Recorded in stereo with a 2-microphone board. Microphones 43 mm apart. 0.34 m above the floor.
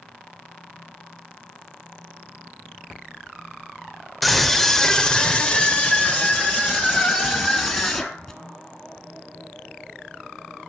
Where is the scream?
Centre (ahead or behind), 0.8 m; by 8.4 s 25° left (ahead or behind), 2 m.